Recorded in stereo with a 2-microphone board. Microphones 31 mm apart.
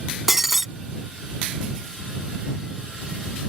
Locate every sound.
0.3 s breaking glass: 10° right (ahead or behind)